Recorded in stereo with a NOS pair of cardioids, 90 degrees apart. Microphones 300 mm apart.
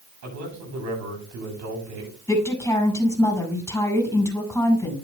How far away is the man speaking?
About 8.5 m.